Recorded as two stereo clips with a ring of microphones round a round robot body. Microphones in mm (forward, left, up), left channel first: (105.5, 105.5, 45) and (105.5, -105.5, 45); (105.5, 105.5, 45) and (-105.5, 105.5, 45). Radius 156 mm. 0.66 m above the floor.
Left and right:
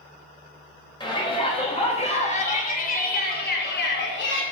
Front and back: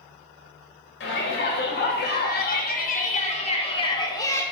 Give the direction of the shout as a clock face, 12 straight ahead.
11 o'clock.